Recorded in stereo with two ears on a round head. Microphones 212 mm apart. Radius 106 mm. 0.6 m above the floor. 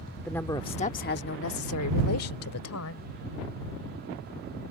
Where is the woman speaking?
5° left (ahead or behind); by 3.0 s 65° left (ahead or behind).